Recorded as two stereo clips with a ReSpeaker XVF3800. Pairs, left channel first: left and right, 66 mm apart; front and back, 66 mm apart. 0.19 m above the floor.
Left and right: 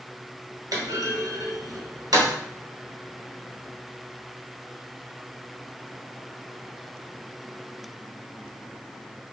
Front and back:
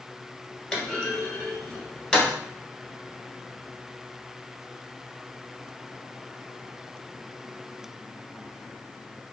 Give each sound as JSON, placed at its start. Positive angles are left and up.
{"t": 0.7, "sound": "a clunk", "azimuth_deg": -80, "distance_m": 1.4}